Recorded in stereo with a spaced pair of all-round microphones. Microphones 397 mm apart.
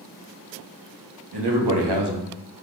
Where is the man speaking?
75° right (ahead or behind), 0.9 m; by 2.3 s 65° right (ahead or behind), 0.7 m.